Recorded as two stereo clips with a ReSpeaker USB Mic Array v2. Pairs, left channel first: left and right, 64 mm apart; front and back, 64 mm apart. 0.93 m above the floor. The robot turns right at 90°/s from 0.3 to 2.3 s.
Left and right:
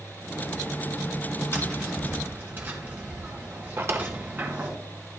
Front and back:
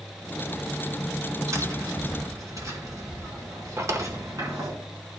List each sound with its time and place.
1.5 s tapping: 145° left, 3.5 m; by 4.7 s 145° right, 3.5 m
3.8 s a drawer: 140° right, 1.2 m